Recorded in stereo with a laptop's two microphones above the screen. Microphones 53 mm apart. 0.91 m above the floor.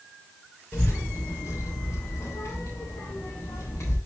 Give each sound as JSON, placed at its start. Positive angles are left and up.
{"t": 0.7, "sound": "a child speaking", "side_deg": 70, "distance_m": 1.6}